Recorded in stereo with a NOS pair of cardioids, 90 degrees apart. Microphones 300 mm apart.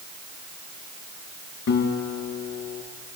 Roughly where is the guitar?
Ahead left.